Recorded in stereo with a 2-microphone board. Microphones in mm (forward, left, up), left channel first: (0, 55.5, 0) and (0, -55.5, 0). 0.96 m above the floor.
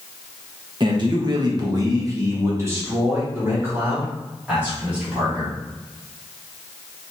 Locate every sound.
0.8 s a man speaking: 45° right (ahead or behind), 1.1 m; by 5.5 s 10° right (ahead or behind), 3 m